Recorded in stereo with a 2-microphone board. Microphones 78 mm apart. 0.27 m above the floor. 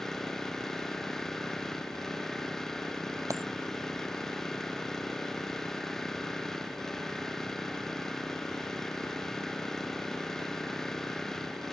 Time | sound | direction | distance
0.0 | an engine running | 5° left (ahead or behind) | ?
3.3 | a dropped coin | 45° right (ahead or behind) | ?